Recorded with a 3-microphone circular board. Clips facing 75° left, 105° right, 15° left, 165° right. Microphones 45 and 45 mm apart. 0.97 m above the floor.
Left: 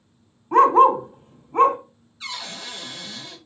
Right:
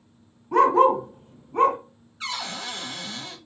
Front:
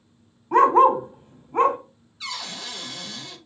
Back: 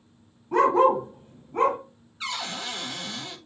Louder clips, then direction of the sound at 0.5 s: Left 3 dB, front 4 dB; 35° left.